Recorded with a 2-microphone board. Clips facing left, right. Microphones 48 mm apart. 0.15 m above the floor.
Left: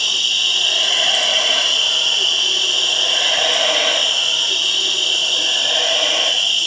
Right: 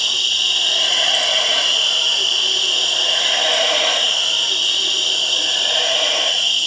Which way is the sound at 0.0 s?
85° left.